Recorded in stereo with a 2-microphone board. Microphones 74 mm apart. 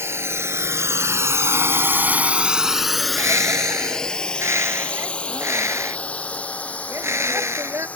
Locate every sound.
0.0 s a drone: 35° right (ahead or behind); by 8.0 s 20° left (ahead or behind)
3.0 s a bird: 40° right (ahead or behind)